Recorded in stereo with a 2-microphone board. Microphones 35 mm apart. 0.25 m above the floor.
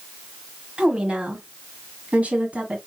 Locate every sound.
0.8 s a woman speaking: 35° right (ahead or behind), 1.4 m; by 2.8 s 45° right (ahead or behind), 1.8 m